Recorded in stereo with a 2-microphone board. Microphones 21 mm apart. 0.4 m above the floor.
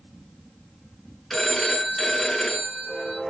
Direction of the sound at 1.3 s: 10° left (ahead or behind).